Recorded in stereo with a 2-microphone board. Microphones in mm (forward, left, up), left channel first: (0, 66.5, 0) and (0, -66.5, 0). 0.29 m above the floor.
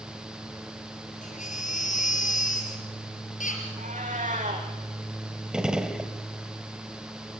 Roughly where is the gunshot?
Centre.